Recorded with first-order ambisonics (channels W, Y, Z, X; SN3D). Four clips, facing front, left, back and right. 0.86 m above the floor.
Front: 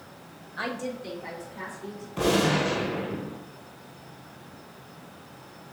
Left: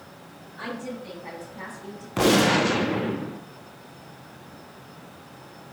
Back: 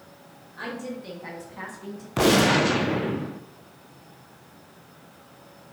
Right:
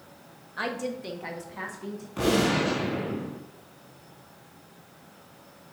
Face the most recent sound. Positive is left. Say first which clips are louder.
# left 5 dB, back 4 dB
turn(degrees=145)